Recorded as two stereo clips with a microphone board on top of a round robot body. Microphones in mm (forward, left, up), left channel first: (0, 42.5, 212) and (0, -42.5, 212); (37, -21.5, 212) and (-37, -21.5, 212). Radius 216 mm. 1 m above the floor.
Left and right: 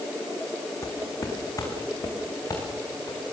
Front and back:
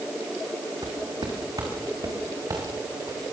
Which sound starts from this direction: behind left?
Footsteps, at 0.8 s.